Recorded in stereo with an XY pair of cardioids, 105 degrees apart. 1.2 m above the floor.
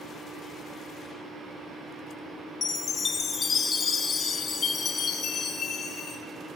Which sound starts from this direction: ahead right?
A fan, at 0.0 s.